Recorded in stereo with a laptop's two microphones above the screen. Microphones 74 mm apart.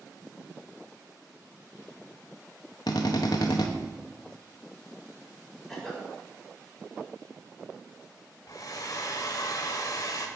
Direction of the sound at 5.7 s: 5° left (ahead or behind).